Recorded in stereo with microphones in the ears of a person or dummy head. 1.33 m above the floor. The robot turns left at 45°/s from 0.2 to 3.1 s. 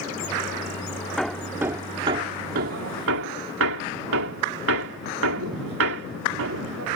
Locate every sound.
1.2 s hammering: 5° left (ahead or behind); by 6.9 s 80° right